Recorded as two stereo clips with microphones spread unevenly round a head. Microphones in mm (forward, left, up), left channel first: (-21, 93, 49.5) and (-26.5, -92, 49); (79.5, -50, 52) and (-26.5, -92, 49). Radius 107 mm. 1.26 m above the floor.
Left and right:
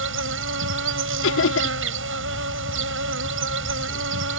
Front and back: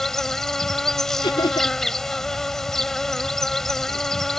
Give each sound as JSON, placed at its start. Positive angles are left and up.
{"t": 0.0, "sound": "an insect", "azimuth_deg": -65}
{"t": 1.2, "sound": "laughter", "azimuth_deg": 85}